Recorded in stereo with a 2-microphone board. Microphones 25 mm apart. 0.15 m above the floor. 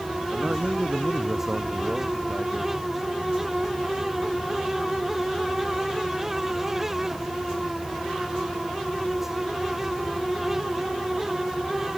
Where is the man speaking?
50° right (ahead or behind); by 2.7 s 40° right (ahead or behind).